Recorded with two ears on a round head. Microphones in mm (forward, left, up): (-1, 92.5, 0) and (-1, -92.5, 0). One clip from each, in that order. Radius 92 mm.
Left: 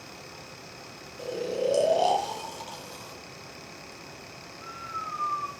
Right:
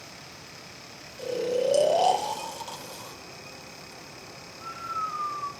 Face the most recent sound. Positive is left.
turn(degrees=-20)  # may be behind; listen again after turning